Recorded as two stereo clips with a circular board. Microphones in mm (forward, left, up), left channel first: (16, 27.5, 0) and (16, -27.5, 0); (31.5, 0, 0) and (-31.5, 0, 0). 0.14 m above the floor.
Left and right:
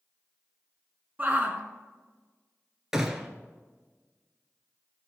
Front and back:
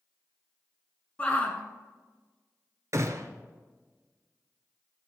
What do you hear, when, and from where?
1.2 s a shout: 45° right, 1.3 m
2.9 s a gunshot: 165° right, 1.2 m